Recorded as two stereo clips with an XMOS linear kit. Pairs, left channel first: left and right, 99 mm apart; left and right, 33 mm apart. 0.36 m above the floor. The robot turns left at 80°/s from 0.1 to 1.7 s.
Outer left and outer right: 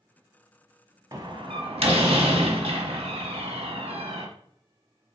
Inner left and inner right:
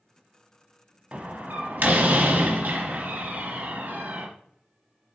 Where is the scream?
No scream in this recording.